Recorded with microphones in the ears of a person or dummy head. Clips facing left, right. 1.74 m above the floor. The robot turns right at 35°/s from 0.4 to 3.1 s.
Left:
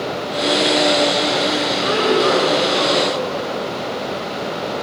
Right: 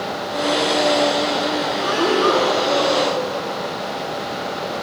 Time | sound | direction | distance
1.8 | breathing | 145° left | 5 m